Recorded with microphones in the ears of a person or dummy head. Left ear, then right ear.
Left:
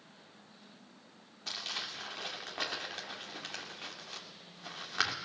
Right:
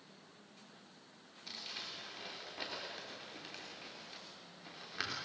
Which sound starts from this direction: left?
Crumpling, at 1.5 s.